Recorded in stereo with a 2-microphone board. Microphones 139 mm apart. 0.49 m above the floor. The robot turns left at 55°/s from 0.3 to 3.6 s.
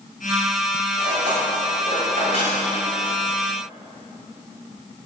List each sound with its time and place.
1.0 s cutlery clinking: 40° right (ahead or behind), 1.9 m; by 2.6 s 50° right (ahead or behind), 1.9 m